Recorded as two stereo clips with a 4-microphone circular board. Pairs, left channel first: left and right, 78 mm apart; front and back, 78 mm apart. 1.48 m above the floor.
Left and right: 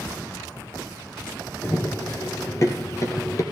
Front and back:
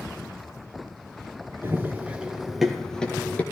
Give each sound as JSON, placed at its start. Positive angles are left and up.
{"t": 1.6, "sound": "running footsteps", "azimuth_deg": 135, "distance_m": 1.9}